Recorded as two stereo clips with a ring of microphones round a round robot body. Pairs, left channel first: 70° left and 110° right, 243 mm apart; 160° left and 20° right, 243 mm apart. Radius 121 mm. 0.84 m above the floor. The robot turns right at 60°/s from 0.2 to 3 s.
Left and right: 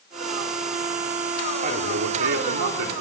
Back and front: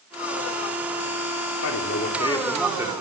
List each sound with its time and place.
1.6 s a man speaking: 175° right, 2.5 m; by 2.9 s 95° right, 2.5 m